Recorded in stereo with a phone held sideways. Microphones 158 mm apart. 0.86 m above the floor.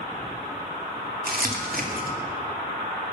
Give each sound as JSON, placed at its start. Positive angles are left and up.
{"t": 1.2, "sound": "crumpling", "side_deg": -70, "distance_m": 2.5}